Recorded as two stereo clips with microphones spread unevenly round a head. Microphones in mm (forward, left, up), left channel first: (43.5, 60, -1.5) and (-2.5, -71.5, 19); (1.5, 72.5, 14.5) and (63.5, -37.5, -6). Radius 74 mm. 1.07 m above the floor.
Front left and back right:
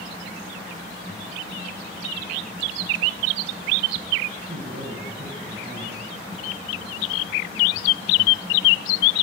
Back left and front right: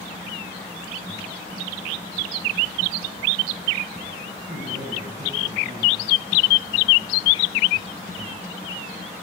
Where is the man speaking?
100° right, 7.5 m.